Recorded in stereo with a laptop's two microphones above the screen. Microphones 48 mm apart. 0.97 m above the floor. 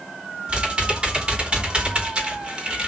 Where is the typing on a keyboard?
25° right (ahead or behind), 3 m.